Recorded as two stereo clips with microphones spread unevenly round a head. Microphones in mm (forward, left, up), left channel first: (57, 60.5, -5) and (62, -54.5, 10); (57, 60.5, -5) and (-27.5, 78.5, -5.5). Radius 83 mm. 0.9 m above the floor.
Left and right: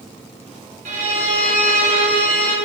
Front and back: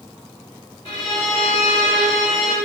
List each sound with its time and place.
0.8 s a violin: 75° right, 1.3 m